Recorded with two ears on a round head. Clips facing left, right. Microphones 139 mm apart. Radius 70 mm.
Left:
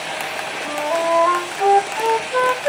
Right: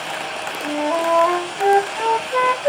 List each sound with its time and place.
0.6 s a flute: 15° right (ahead or behind), 1.8 m